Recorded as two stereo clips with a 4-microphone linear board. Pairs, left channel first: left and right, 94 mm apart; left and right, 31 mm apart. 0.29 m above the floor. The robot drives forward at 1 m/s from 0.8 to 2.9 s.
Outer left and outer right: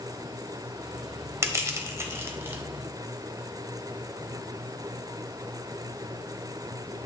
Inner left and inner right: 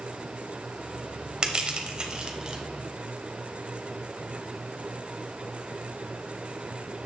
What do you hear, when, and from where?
1.4 s crushing: 30° right (ahead or behind), 1.1 m; by 2.6 s 25° right (ahead or behind), 1.4 m